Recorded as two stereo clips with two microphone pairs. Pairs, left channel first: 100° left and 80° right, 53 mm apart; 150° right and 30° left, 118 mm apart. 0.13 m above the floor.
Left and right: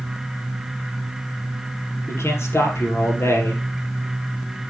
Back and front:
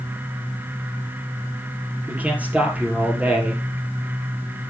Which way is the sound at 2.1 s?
105° left.